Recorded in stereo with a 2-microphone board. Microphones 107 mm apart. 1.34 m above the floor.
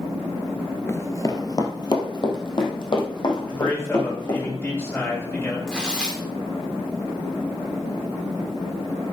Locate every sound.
0.9 s running footsteps: 25° left (ahead or behind), 1.4 m; by 4.5 s 45° left (ahead or behind), 5.5 m
3.5 s a man speaking: 20° left (ahead or behind), 6.5 m
5.7 s tearing paper: 5° left (ahead or behind), 4 m